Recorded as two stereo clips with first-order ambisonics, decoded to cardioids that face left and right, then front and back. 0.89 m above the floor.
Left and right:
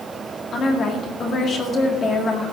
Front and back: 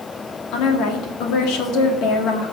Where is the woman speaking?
25° left, 2 m.